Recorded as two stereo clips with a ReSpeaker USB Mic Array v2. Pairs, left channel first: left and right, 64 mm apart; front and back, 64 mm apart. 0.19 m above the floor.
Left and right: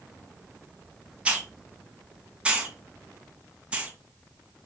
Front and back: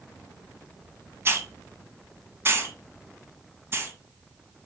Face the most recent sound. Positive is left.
turn(degrees=-155)